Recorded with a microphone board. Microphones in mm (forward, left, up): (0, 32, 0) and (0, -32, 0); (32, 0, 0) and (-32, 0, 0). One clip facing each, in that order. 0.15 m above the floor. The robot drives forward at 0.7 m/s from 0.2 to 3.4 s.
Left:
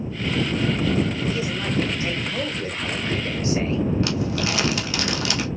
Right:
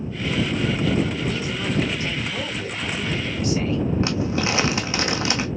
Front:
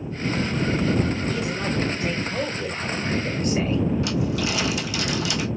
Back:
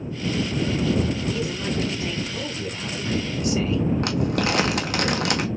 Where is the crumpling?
150° right, 1.4 m.